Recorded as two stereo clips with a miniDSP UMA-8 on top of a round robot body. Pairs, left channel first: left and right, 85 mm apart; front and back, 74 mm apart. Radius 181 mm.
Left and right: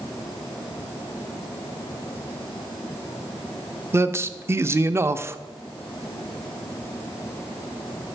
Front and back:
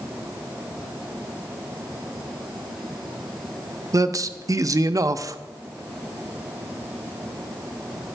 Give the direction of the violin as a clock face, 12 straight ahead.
I don't hear a violin.